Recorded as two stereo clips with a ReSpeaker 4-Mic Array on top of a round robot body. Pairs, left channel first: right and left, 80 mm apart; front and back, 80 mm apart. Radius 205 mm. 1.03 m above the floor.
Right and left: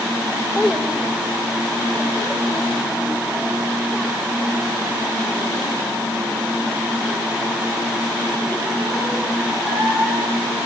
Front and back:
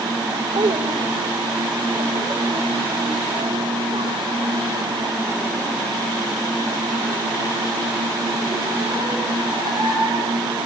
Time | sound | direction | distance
0.6 | a child speaking | 170° left | 1.1 m